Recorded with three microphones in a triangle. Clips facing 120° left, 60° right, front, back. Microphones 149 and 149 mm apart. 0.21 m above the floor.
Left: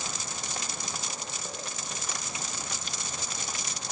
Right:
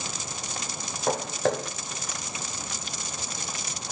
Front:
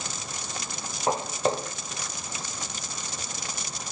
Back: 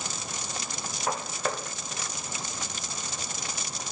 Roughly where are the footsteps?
Ahead right.